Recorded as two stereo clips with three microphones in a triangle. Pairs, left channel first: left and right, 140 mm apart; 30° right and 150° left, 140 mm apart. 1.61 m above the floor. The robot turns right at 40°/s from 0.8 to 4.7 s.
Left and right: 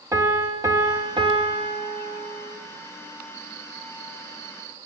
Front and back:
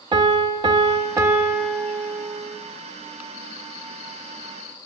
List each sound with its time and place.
0.1 s a piano: 155° right, 0.5 m; by 2.6 s 85° right, 0.5 m